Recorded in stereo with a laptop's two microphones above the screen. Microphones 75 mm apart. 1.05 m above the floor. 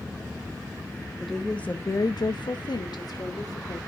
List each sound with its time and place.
1.2 s a woman speaking: centre (ahead or behind), 1.5 m; by 3.8 s 50° left (ahead or behind), 2.5 m